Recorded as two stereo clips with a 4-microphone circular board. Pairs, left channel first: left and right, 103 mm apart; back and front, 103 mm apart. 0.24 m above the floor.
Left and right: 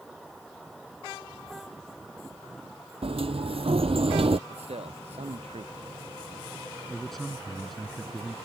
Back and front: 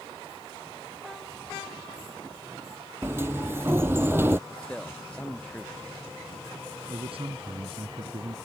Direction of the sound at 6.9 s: Straight ahead.